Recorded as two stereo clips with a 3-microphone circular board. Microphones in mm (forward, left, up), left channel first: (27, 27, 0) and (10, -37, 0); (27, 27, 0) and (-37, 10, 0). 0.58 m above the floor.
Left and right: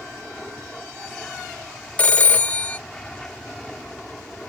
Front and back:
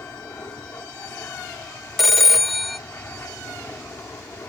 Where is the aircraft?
Straight ahead.